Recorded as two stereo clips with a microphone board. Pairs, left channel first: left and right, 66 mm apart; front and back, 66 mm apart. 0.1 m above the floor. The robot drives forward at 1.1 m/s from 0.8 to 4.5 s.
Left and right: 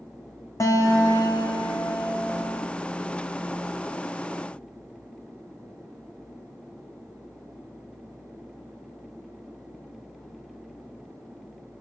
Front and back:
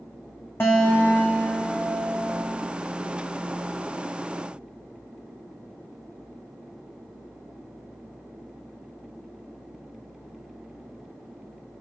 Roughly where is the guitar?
Ahead left.